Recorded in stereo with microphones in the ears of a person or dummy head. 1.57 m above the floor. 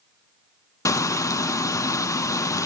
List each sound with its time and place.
0.8 s frying: 15° left (ahead or behind), 0.6 m